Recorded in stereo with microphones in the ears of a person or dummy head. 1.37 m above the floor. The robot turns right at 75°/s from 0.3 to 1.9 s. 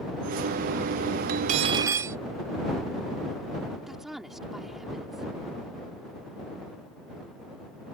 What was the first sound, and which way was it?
Cutlery clinking, 65° right.